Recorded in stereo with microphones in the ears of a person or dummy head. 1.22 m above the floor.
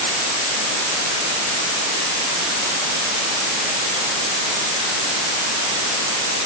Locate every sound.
Only background noise.